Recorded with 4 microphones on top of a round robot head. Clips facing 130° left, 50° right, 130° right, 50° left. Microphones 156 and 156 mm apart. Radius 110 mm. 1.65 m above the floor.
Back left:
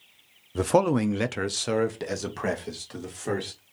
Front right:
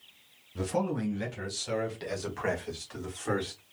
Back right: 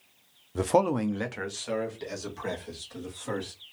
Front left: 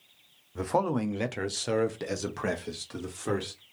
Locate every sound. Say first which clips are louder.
0.6 s a man speaking: back left 9 dB, back right 3 dB; 175° left, 0.5 m; by 3.6 s 70° left, 1.8 m